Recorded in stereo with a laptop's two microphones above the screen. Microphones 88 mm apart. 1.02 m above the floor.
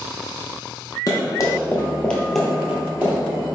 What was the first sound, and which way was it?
Running footsteps, 40° left (ahead or behind).